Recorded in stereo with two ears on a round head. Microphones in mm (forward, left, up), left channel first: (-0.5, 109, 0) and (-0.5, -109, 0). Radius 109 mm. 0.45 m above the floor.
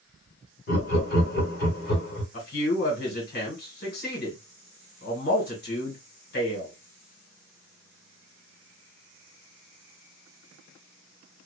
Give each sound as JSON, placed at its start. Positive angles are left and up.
{"t": 0.7, "sound": "laughter", "side_deg": 40, "distance_m": 1.3}
{"t": 2.3, "sound": "a man speaking", "side_deg": 45, "distance_m": 1.7}